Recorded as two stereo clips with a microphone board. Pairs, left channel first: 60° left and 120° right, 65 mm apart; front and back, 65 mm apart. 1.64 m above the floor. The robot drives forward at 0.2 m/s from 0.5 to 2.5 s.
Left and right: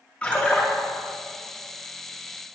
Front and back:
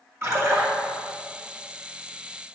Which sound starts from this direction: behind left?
A splash, at 0.2 s.